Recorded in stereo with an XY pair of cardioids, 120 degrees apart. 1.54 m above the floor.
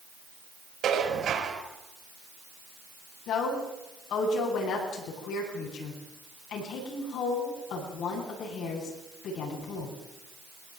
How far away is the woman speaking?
About 10 m.